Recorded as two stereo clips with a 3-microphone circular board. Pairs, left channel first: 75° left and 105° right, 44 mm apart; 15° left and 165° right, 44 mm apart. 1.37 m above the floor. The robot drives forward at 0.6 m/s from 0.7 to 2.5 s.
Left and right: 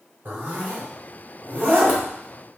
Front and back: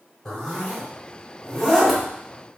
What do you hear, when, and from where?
0.2 s a zipper: 55° right, 3.5 m; by 2.0 s 70° right, 3 m